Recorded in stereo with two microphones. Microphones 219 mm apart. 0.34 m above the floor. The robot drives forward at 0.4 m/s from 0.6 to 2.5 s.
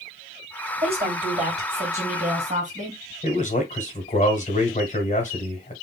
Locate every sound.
0.8 s a woman speaking: 30° right (ahead or behind), 2 m; by 3.0 s 35° right (ahead or behind), 1.7 m
3.2 s a man speaking: 35° left (ahead or behind), 1.1 m